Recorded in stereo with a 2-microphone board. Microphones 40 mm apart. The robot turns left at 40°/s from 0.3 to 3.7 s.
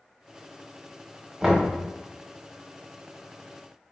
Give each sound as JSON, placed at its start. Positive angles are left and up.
{"t": 1.4, "sound": "knocking", "side_deg": -20, "distance_m": 0.8}